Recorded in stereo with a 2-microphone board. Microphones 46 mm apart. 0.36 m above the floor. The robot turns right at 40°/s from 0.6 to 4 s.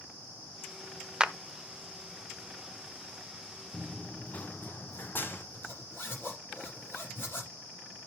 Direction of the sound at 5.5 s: 55° left (ahead or behind).